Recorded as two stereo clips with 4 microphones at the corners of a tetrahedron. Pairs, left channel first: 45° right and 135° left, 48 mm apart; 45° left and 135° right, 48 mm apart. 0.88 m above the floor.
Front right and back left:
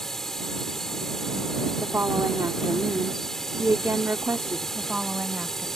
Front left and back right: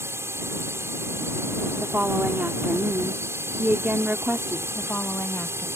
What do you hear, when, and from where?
0.0 s a drone: 125° right
1.8 s a woman speaking: 170° left
4.8 s a woman speaking: 70° left